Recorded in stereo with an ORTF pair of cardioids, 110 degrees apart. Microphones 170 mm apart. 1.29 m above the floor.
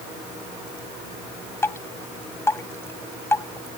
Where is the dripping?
15° left.